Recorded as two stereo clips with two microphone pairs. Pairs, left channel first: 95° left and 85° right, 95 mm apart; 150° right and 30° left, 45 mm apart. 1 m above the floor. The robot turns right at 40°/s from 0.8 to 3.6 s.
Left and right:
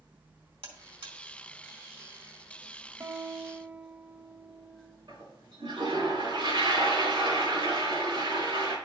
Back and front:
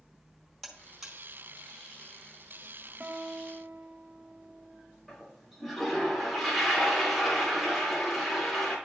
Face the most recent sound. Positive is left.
turn(degrees=-60)